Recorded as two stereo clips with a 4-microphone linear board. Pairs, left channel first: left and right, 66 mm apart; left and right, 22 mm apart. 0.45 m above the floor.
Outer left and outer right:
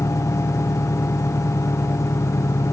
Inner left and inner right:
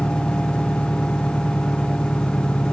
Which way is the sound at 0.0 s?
80° left.